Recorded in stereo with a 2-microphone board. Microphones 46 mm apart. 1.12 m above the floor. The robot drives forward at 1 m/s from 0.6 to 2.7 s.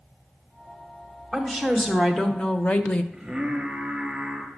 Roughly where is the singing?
Right.